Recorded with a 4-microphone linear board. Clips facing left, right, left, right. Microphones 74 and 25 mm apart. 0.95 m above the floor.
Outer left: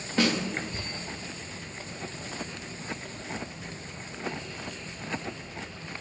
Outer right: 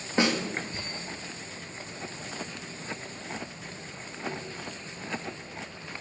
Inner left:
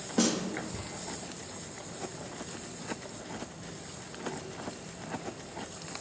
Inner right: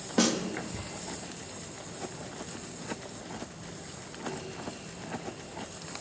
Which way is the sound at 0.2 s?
25° right (ahead or behind).